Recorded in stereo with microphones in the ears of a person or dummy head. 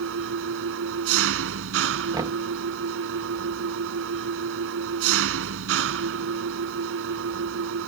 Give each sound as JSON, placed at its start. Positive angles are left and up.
{"t": 0.0, "sound": "an engine running", "side_deg": -75}
{"t": 2.1, "sound": "knocking", "side_deg": -20}